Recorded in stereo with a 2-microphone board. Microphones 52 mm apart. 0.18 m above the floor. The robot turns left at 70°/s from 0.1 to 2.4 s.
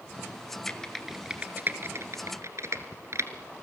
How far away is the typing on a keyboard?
About 1.9 m.